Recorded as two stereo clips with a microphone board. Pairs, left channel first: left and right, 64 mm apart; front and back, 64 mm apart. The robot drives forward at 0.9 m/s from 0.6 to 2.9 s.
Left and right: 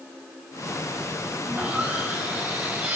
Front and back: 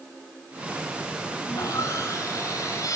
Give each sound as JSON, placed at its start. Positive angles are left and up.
{"t": 1.4, "sound": "sawing", "azimuth_deg": -25, "distance_m": 7.0}